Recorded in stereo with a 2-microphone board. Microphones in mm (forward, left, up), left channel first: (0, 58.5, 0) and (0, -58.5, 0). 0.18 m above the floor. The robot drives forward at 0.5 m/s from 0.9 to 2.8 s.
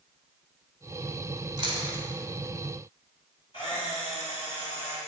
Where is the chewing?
40° right (ahead or behind), 0.6 m; by 2.0 s 30° right (ahead or behind), 0.8 m.